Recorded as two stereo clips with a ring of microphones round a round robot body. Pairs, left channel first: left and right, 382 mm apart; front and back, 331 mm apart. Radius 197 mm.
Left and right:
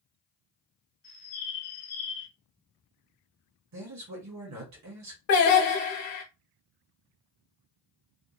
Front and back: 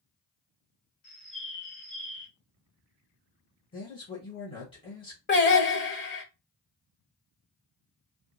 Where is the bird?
30° left, 1.9 m.